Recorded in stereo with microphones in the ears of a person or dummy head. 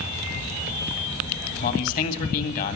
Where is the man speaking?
45° left (ahead or behind), 2 m.